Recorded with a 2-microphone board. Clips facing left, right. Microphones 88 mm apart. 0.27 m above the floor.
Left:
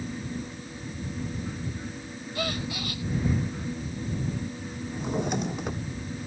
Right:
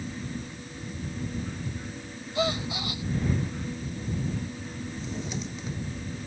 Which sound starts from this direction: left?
A drawer, at 4.9 s.